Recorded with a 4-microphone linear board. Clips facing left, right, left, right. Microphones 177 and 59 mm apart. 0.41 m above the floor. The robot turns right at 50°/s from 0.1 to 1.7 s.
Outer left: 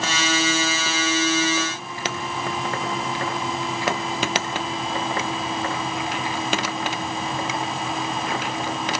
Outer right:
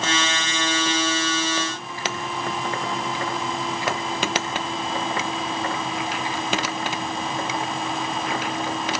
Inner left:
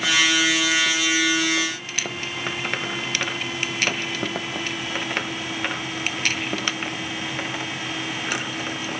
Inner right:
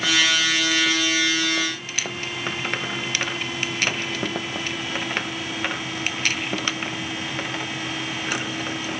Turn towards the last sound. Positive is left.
No sound to turn to.